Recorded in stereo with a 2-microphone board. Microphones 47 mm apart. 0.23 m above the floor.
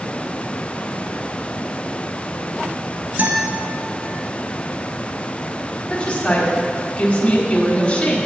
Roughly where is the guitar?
Right.